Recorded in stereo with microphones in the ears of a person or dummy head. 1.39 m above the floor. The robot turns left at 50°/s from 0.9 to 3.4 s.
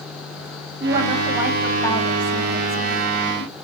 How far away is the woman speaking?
About 2.5 m.